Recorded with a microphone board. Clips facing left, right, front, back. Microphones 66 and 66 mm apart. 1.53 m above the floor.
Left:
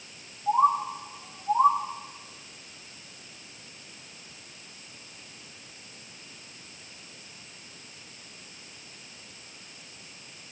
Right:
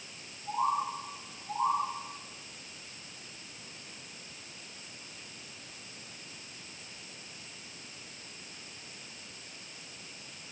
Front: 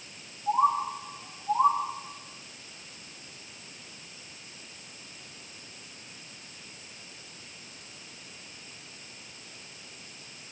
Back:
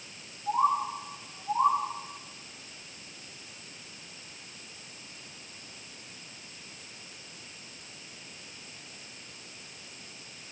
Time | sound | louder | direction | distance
0.5 | a bird | left 8 dB, front 2 dB | 80° left | 1.8 m